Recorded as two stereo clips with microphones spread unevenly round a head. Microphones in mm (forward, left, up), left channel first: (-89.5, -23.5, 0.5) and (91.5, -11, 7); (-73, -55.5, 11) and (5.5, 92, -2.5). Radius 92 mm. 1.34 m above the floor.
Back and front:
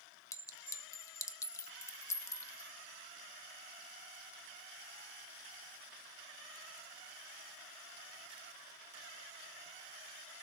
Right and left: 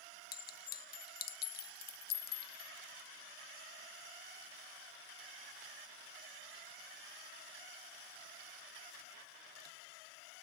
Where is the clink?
105° right, 1.1 m.